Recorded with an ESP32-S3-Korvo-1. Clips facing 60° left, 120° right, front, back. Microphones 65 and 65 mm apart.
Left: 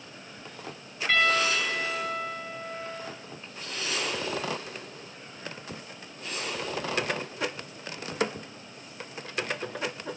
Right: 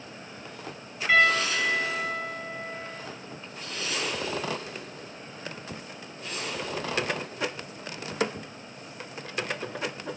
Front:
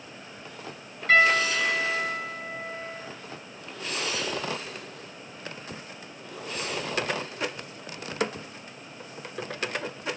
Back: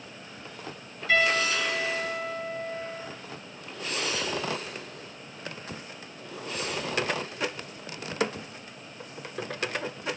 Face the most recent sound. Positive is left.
turn(degrees=-40)